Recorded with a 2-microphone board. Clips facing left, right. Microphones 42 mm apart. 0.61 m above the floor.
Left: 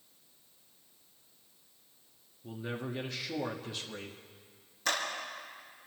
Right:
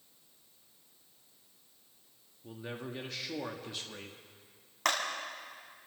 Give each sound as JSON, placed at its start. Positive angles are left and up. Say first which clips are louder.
{"t": 2.4, "sound": "a man speaking", "louder": "left 3 dB", "side_deg": 0, "distance_m": 1.1}
{"t": 4.8, "sound": "a clap", "louder": "right 2 dB", "side_deg": -75, "distance_m": 4.5}